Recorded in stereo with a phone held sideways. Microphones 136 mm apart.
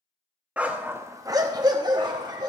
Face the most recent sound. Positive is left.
turn(degrees=-30)  # may be behind; listen again after turning